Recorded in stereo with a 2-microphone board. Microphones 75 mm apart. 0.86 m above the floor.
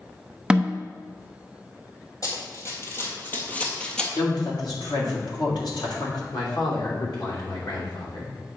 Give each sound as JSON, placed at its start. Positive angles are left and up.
{"t": 0.5, "sound": "a snare drum", "side_deg": -10, "distance_m": 0.6}
{"t": 2.2, "sound": "running footsteps", "side_deg": 50, "distance_m": 1.8}
{"t": 4.2, "sound": "a woman speaking", "side_deg": 70, "distance_m": 2.0}
{"t": 6.3, "sound": "a man speaking", "side_deg": 75, "distance_m": 3.0}